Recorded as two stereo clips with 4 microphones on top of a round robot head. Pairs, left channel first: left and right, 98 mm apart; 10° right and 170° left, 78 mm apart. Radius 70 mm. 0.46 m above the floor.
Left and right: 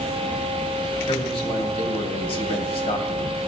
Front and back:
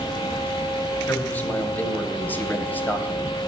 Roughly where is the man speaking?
Ahead left.